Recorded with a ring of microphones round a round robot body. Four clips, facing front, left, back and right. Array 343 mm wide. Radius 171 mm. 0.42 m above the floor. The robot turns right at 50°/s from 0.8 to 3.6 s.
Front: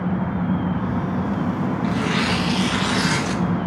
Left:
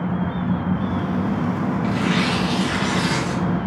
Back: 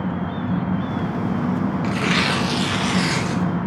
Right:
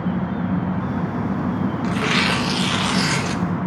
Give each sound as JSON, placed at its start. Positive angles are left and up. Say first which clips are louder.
{"t": 1.8, "sound": "tearing paper", "louder": "even, even", "azimuth_deg": -135, "distance_m": 0.5}